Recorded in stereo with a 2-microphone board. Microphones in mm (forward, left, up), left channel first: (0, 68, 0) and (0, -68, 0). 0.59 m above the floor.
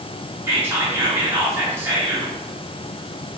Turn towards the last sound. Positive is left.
turn(degrees=-20)  # may be behind; listen again after turning